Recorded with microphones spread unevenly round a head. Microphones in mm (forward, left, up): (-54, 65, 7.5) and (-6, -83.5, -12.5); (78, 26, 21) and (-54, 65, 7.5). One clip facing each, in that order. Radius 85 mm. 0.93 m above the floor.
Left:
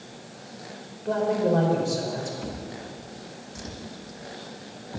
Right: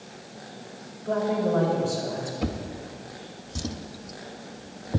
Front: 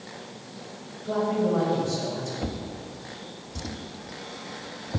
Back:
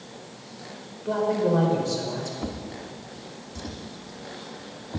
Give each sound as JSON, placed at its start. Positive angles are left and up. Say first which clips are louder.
{"t": 1.1, "sound": "a man speaking", "louder": "left 1 dB, back 2 dB", "azimuth_deg": 155, "distance_m": 4.5}
{"t": 2.4, "sound": "a drawer", "louder": "right 4 dB, even", "azimuth_deg": -95, "distance_m": 0.8}